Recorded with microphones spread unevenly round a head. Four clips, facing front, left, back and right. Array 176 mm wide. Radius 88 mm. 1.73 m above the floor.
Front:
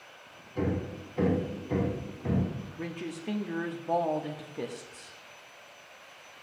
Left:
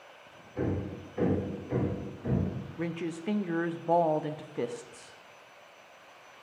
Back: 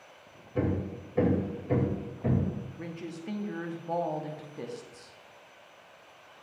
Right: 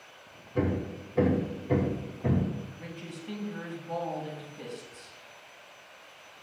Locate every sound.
0.6 s hammering: 145° right, 2.5 m
2.8 s a woman speaking: 65° left, 0.6 m